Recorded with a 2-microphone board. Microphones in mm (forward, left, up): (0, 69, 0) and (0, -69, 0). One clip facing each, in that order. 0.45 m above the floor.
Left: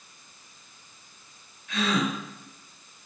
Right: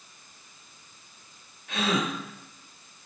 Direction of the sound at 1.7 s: 55° right (ahead or behind).